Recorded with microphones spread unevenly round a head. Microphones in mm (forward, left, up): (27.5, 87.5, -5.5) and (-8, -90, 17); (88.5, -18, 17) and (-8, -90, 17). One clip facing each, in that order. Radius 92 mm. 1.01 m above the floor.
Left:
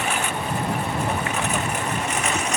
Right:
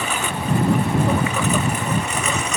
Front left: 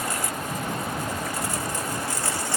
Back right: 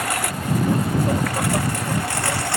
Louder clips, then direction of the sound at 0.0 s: Right 1 dB, back right 4 dB; 120° right.